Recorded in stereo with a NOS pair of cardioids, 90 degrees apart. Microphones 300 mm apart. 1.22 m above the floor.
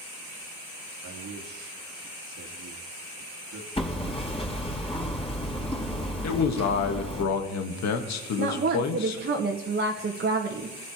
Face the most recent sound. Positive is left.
turn(degrees=-35)